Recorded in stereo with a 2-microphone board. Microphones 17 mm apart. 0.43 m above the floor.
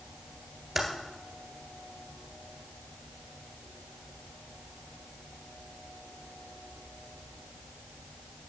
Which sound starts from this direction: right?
Typing on a keyboard, at 0.8 s.